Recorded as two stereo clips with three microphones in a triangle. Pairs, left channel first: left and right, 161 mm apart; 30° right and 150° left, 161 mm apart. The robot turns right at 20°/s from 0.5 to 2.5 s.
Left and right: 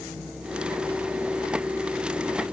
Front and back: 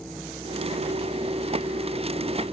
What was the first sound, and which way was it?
Only background noise.